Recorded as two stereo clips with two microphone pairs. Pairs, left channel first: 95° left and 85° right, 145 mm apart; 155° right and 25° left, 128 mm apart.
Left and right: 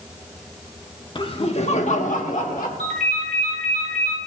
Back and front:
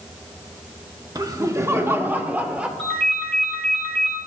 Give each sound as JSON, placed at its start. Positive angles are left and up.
{"t": 1.1, "sound": "laughter", "azimuth_deg": 65, "distance_m": 0.8}
{"t": 2.8, "sound": "a ringtone", "azimuth_deg": -80, "distance_m": 2.0}